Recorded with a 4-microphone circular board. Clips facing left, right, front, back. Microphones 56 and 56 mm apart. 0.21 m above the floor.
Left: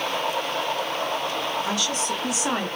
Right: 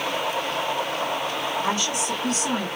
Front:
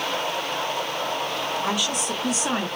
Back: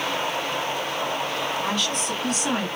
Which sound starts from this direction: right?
A woman speaking, at 1.6 s.